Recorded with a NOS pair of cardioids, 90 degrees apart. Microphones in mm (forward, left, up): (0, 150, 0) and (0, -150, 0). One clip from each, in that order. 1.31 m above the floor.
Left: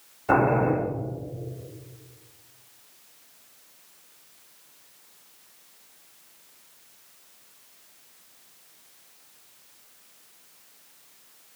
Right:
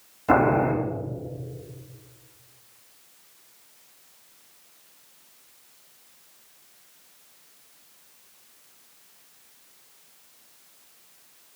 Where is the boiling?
65° right, 3 m.